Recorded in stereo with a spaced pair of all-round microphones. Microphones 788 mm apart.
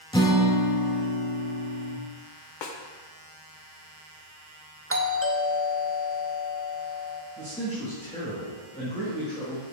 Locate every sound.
0.1 s a guitar: 5° left (ahead or behind), 0.6 m
2.6 s a snare drum: 75° left (ahead or behind), 0.8 m
4.9 s a doorbell: 20° right (ahead or behind), 0.5 m
7.4 s a man speaking: 10° left (ahead or behind), 1.4 m